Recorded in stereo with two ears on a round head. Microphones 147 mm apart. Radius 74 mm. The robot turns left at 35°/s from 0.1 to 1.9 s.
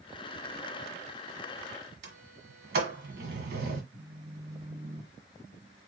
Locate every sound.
2.0 s a sliding door: 75° right (ahead or behind), 1.5 m
3.9 s a phone buzzing: 15° right (ahead or behind), 1.8 m